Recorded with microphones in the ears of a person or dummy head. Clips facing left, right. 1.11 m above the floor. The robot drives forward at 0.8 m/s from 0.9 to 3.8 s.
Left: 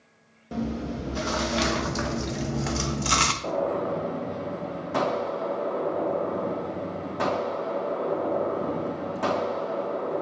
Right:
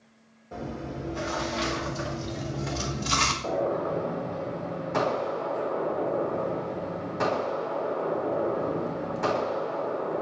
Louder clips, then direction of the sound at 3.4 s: Even; 50° left (ahead or behind).